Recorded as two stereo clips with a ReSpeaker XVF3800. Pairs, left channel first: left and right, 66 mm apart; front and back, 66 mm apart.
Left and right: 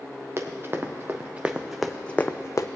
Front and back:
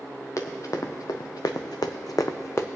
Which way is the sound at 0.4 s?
40° right.